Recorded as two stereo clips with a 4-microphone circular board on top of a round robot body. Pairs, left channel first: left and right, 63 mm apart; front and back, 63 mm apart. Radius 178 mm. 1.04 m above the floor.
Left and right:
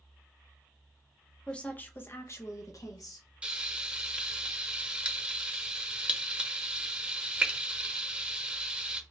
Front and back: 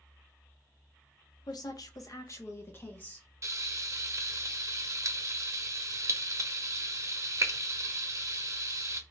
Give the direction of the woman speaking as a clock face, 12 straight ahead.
12 o'clock.